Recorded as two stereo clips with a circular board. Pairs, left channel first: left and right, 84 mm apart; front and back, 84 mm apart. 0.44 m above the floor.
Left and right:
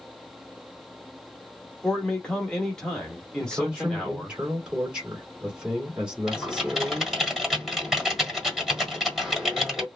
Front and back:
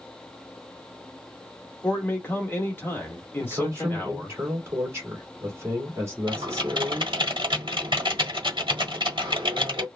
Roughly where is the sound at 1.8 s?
Ahead left.